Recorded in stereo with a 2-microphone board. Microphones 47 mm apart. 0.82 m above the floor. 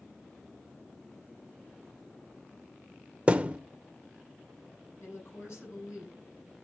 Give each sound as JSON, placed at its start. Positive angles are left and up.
{"t": 3.3, "sound": "a thud", "side_deg": -25, "distance_m": 0.7}
{"t": 5.0, "sound": "a woman speaking", "side_deg": 60, "distance_m": 9.5}